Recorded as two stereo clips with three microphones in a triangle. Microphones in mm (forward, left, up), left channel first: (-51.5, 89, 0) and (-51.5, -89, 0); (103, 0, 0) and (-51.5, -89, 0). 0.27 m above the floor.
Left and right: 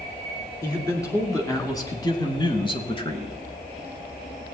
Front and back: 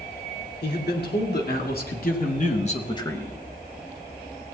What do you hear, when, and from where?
0.6 s a man speaking: 15° left, 3 m; by 3.4 s 115° left, 1.0 m